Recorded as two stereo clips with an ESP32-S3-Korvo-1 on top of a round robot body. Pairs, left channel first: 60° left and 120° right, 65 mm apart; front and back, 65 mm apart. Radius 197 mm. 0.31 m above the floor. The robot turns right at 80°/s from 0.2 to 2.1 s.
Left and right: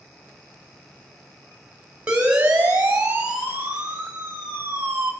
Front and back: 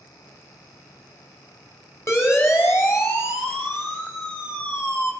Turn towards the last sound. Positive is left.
turn(degrees=-60)